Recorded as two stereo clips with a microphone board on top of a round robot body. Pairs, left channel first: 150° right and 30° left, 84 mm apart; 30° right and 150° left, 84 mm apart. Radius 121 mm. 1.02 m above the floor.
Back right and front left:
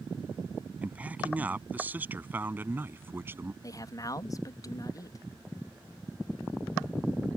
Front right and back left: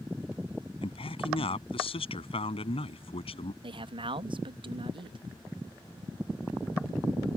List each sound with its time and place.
0.8 s a man speaking: 45° right; by 3.5 s 35° right
3.6 s a man speaking: 165° left